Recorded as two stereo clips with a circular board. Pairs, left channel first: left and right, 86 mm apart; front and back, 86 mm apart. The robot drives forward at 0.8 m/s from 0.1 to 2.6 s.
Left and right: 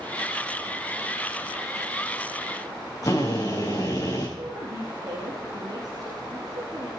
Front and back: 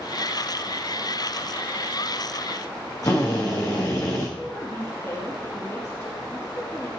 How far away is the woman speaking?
About 3.5 m.